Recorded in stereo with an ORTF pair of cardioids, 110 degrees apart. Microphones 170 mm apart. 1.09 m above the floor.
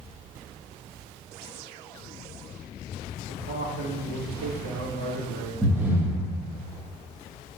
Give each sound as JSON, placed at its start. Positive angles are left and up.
{"t": 3.3, "sound": "a man speaking", "azimuth_deg": -65, "distance_m": 1.8}
{"t": 5.6, "sound": "breathing", "azimuth_deg": -10, "distance_m": 0.7}